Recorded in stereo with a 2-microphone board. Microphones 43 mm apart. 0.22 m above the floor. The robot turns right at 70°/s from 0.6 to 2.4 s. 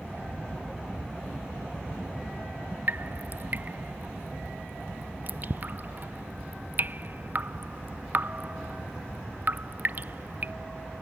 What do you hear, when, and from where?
2.9 s dripping: 40° right (ahead or behind)